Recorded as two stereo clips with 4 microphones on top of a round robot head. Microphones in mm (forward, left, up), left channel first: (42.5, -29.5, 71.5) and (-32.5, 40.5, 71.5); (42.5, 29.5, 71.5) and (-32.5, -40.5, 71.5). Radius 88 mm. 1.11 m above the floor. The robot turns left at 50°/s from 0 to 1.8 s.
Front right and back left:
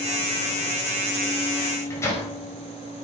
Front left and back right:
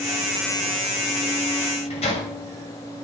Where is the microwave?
30° left, 6 m; by 2.3 s 20° left, 6 m.